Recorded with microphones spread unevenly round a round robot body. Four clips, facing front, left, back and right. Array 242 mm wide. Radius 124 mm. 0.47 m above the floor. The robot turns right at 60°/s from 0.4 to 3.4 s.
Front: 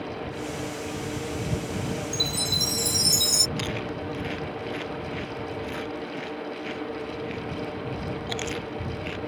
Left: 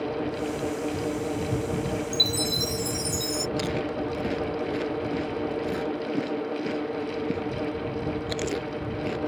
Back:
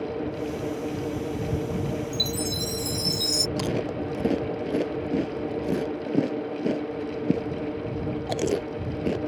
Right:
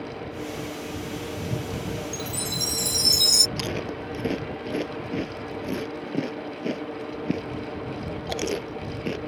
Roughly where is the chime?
Behind.